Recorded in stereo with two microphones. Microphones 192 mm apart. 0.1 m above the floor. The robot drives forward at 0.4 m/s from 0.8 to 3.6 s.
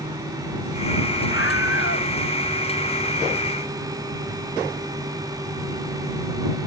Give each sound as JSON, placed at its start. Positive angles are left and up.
{"t": 1.3, "sound": "a scream", "side_deg": 85}